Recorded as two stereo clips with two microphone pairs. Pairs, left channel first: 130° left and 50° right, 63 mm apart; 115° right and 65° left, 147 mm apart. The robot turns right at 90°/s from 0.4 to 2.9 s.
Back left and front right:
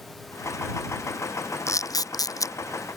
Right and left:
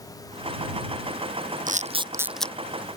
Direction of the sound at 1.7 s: 90° left.